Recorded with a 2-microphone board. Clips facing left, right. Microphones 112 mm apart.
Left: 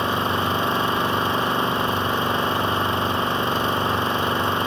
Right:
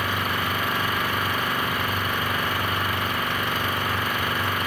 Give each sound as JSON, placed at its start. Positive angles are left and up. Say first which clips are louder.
{"t": 0.0, "sound": "an engine running", "louder": "left 4 dB", "side_deg": 25}